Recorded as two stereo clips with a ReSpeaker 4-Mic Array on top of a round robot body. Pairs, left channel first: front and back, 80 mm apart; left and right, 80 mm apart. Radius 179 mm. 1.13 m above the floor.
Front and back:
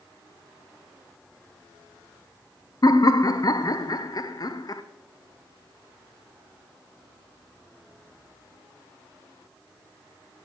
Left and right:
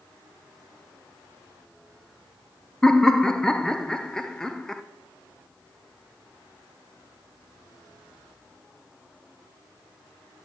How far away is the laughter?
About 0.7 m.